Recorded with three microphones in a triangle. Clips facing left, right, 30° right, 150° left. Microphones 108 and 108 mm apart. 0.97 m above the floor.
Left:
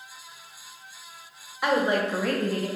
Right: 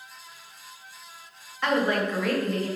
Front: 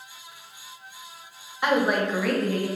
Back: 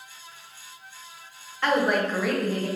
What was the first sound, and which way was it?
A woman speaking, 25° left.